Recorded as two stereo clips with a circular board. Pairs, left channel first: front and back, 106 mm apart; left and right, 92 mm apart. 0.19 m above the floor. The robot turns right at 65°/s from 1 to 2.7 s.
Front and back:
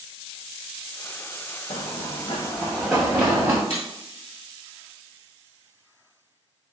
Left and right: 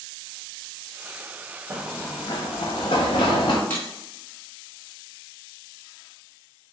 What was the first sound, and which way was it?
Running footsteps, 25° right.